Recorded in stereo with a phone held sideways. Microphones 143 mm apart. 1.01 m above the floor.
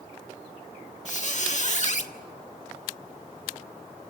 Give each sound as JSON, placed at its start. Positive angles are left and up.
{"t": 1.1, "sound": "a squeak", "side_deg": 60, "distance_m": 1.5}